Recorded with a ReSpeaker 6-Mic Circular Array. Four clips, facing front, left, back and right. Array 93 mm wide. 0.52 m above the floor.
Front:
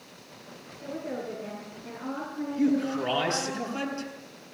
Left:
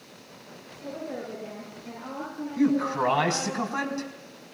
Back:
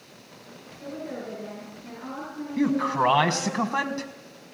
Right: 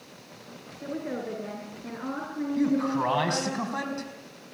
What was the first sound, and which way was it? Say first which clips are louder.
A woman speaking: right 2 dB, even; 90° right.